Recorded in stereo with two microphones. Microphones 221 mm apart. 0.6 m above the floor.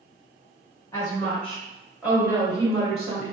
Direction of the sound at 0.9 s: 15° left (ahead or behind).